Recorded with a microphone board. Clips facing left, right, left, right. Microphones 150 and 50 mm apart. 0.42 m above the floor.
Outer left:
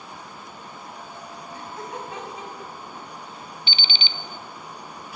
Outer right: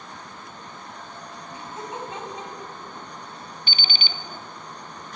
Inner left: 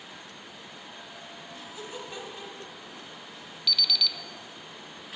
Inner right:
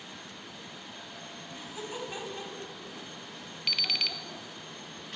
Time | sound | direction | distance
1.5 | laughter | 20° right (ahead or behind) | 3.5 m
3.7 | an alarm clock | 50° right (ahead or behind) | 0.5 m